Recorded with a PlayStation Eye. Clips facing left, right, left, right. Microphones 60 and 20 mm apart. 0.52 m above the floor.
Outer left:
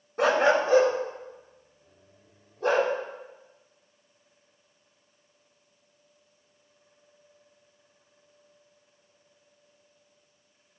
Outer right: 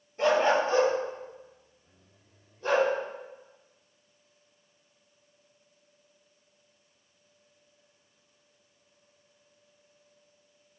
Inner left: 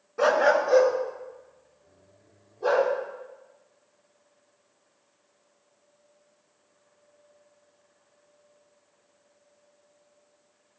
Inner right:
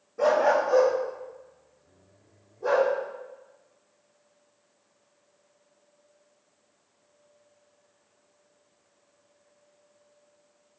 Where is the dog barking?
85° left, 1.4 m.